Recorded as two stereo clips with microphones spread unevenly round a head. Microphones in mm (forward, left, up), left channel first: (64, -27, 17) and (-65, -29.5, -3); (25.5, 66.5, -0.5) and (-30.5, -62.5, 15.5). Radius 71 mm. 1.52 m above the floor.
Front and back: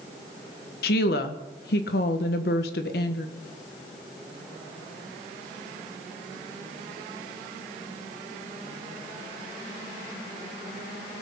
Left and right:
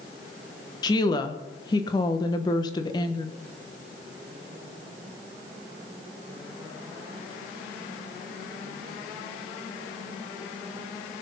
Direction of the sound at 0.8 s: 5° left.